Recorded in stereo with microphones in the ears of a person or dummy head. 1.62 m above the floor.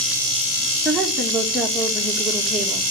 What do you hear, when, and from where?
0.8 s a woman speaking: 5° right (ahead or behind), 2.5 m